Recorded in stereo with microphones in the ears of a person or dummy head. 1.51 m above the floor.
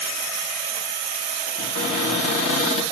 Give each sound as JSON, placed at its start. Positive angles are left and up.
{"t": 1.6, "sound": "a cupboard door", "side_deg": 45, "distance_m": 3.0}